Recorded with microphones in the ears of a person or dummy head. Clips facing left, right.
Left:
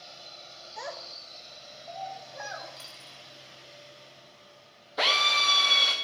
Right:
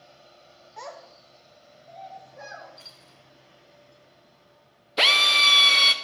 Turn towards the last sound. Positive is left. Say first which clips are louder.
# right 2 dB
turn(degrees=-30)  # may be behind; listen again after turning